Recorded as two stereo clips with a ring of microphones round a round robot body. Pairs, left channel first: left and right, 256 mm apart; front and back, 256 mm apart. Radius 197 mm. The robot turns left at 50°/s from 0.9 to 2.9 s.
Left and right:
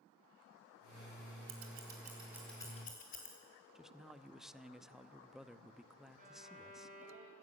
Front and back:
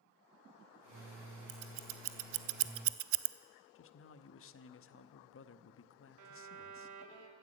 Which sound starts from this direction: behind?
A violin, at 6.2 s.